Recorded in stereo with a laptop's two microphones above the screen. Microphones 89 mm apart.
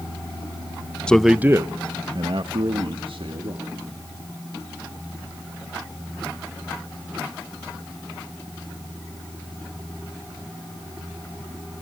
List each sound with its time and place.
1.1 s a man speaking: 10° left (ahead or behind), 0.6 m; by 3.7 s 75° right (ahead or behind), 2 m